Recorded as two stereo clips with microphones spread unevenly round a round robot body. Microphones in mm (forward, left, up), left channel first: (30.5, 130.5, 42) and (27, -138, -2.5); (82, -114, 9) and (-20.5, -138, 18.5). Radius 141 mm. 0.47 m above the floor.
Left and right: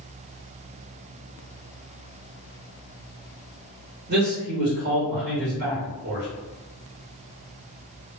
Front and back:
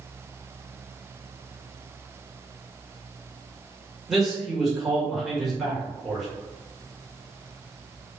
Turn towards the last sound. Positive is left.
turn(degrees=-75)